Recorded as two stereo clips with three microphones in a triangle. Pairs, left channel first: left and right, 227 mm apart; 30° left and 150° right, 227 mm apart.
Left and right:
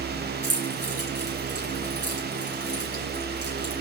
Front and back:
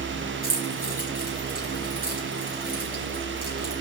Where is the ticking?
I don't hear ticking.